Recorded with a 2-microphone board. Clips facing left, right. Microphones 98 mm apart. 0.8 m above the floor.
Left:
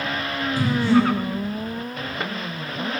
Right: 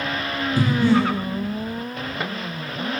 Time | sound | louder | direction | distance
0.6 | breathing | even | 60° right (ahead or behind) | 6 m